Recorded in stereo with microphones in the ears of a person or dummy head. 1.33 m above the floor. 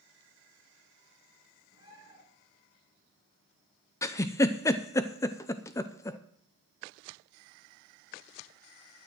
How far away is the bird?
About 5 m.